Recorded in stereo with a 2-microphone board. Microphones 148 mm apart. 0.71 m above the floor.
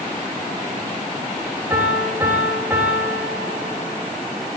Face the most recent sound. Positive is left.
turn(degrees=-20)  # may be behind; listen again after turning